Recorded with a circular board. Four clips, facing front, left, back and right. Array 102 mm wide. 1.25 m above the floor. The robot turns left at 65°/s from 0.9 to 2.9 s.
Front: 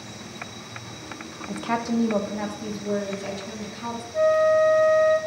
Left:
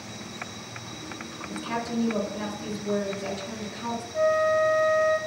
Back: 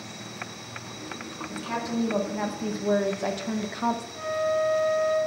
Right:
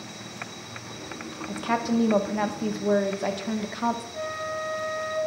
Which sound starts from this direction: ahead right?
A woman speaking, at 1.5 s.